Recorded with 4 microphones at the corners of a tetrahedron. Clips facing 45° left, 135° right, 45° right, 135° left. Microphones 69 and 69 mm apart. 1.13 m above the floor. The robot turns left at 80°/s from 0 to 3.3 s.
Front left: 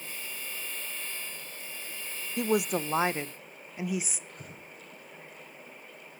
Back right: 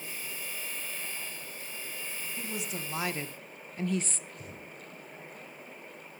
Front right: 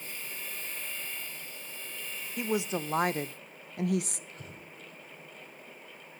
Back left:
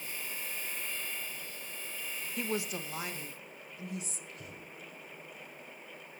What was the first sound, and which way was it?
A woman speaking, 40° left.